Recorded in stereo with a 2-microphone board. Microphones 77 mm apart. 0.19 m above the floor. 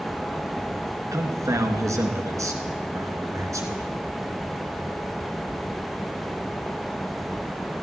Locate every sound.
1.1 s a man speaking: 45° right (ahead or behind), 2.5 m